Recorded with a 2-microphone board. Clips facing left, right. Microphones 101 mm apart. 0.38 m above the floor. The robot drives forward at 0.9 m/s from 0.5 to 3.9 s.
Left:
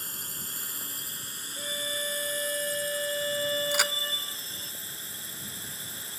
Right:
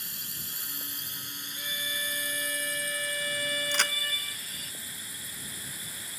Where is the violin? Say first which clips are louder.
Left 3 dB; 40° left (ahead or behind); by 4.7 s 25° left (ahead or behind).